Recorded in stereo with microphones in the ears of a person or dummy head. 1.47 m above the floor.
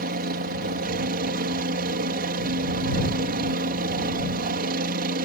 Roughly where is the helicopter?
Right.